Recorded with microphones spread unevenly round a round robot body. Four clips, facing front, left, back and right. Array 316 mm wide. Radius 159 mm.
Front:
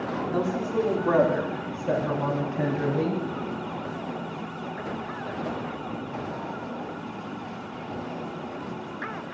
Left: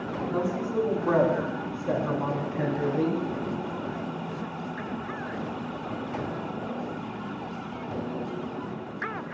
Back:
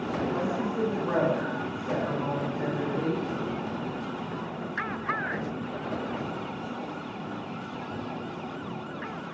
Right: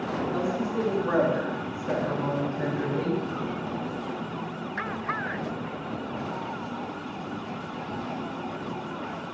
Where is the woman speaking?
20° left, 5 m; by 3.2 s 55° left, 4 m.